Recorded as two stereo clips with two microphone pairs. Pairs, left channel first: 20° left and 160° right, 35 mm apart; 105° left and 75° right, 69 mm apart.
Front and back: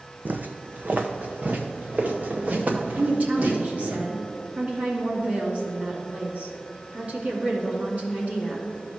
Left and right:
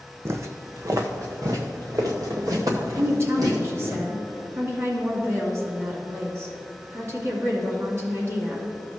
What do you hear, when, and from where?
0.2 s footsteps: 125° right, 0.7 m; by 4.0 s 110° right, 3.5 m
3.0 s a woman speaking: 120° right, 2.5 m